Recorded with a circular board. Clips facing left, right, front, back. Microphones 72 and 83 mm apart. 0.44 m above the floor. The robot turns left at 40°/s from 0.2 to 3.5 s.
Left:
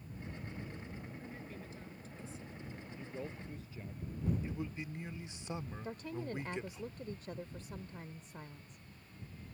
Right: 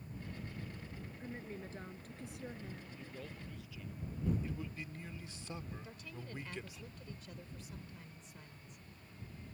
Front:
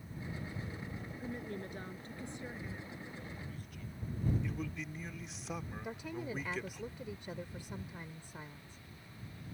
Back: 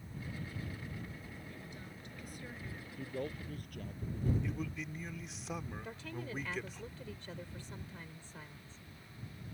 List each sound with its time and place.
1.2 s a woman speaking: 20° right; by 2.9 s 85° right
3.0 s a man speaking: 165° left; by 4.3 s 145° left
4.4 s a man speaking: 90° left
5.8 s a woman speaking: 70° left